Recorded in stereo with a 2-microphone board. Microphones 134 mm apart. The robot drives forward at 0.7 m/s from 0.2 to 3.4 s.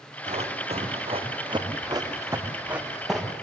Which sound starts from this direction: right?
Running footsteps, at 0.3 s.